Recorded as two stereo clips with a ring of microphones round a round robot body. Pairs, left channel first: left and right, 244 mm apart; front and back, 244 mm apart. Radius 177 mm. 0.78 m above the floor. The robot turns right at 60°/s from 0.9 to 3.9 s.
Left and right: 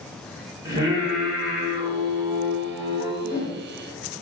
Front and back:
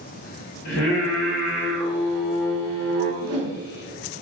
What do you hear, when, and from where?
0.7 s singing: 15° right, 1.7 m; by 3.1 s 120° left, 1.7 m
3.2 s a whoosh: 145° left, 0.7 m; by 3.6 s 170° left, 0.7 m